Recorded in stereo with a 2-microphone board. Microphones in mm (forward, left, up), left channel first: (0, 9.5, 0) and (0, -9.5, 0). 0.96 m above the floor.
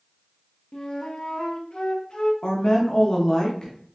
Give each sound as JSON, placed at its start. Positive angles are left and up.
{"t": 0.7, "sound": "a flute", "side_deg": 45, "distance_m": 0.7}
{"t": 2.4, "sound": "a woman speaking", "side_deg": 40, "distance_m": 1.0}